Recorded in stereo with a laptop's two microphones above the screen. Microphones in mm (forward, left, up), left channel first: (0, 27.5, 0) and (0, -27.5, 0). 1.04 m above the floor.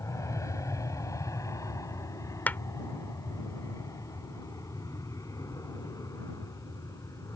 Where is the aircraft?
70° left (ahead or behind); by 7.4 s 85° left.